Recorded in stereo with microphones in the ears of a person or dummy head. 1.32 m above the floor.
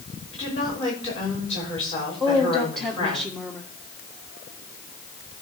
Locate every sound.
0.3 s a woman speaking: 30° left (ahead or behind), 5.5 m
2.2 s a woman speaking: 5° left (ahead or behind), 1.9 m